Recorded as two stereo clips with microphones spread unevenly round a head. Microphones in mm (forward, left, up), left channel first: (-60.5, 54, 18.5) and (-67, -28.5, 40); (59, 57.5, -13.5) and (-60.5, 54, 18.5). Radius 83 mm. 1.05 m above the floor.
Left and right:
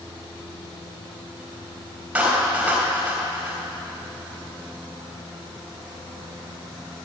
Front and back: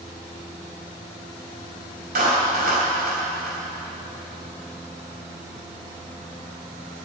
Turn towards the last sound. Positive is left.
turn(degrees=-165)